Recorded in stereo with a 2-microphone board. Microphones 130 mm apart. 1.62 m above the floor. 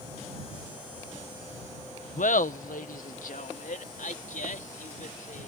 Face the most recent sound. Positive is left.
turn(degrees=85)